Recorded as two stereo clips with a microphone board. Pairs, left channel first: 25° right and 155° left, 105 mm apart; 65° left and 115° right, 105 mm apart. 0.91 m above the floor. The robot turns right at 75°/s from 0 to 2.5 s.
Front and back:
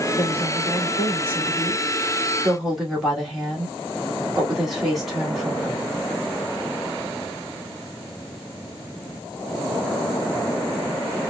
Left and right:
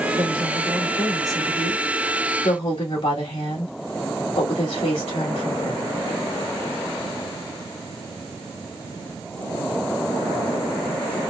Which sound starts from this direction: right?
A woman speaking, at 0.1 s.